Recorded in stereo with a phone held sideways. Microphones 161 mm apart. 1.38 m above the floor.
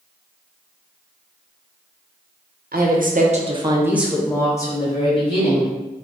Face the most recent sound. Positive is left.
turn(degrees=40)  # may be behind; listen again after turning